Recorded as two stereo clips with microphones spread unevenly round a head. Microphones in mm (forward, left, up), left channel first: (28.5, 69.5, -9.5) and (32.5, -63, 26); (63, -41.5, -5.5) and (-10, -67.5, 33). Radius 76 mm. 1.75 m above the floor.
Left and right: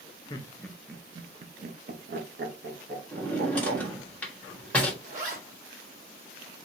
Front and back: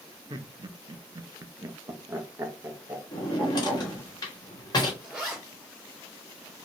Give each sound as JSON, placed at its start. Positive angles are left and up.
{"t": 0.3, "sound": "laughter", "azimuth_deg": 160, "distance_m": 0.6}
{"t": 3.1, "sound": "a drawer", "azimuth_deg": -10, "distance_m": 1.2}
{"t": 5.0, "sound": "a zipper", "azimuth_deg": -95, "distance_m": 2.0}